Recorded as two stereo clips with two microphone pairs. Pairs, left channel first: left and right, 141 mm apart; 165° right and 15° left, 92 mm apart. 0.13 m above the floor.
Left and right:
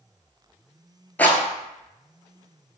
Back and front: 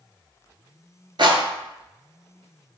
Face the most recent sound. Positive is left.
turn(degrees=15)